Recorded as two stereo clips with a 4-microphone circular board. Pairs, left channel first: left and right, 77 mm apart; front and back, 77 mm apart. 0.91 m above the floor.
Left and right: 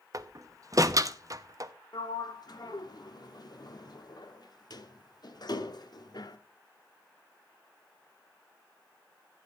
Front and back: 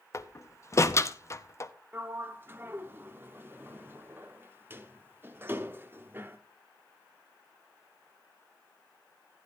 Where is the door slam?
50° right, 0.8 m.